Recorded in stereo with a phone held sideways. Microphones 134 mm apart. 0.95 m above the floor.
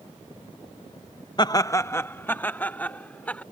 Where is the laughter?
30° left (ahead or behind); by 3.4 s 10° left (ahead or behind).